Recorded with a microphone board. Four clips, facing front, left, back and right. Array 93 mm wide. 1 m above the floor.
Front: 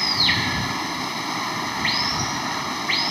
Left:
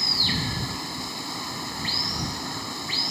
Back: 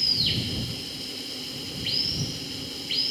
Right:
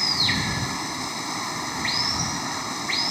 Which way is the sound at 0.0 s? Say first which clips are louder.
Right 3 dB, front 9 dB; 15° right.